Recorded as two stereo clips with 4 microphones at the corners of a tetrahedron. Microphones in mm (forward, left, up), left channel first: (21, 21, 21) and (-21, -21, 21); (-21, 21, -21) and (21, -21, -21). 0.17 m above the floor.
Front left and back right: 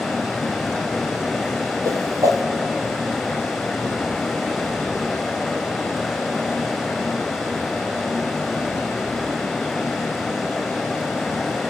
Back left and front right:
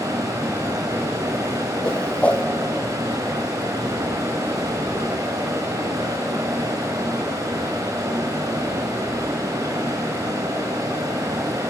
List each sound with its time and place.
0.0 s running water: 45° right, 6 m
1.9 s a whoosh: 160° right, 2.0 m